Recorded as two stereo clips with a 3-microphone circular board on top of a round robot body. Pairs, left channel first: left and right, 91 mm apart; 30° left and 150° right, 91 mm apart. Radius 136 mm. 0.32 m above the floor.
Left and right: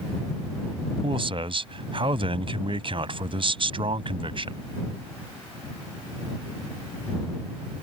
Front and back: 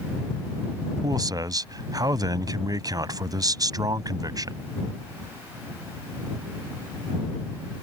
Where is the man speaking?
105° right.